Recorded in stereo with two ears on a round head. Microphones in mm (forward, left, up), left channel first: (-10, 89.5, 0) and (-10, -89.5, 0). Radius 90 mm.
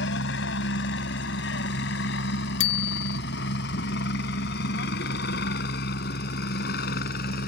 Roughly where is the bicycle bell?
Left.